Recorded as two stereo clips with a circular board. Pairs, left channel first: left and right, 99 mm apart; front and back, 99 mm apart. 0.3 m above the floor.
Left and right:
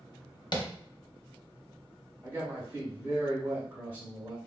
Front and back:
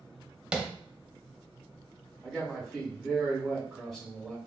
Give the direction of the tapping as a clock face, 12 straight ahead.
9 o'clock.